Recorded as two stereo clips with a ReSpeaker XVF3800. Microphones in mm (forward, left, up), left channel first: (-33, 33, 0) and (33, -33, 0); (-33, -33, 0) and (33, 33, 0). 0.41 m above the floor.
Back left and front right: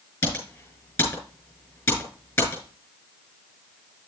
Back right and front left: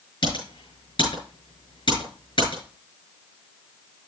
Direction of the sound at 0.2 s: 165° right.